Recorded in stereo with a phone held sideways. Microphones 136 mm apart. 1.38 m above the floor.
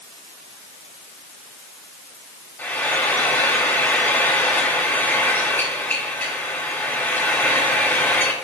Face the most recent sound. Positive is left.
turn(degrees=15)  # may be behind; listen again after turning